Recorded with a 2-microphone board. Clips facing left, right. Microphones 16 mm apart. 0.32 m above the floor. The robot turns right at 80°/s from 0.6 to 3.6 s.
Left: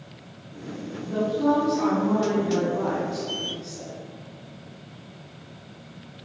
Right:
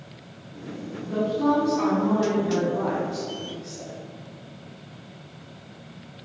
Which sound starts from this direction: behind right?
A woman speaking, at 1.0 s.